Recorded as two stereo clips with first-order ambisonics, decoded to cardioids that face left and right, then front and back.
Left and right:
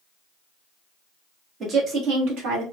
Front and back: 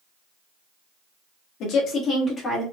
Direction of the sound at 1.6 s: 25° right.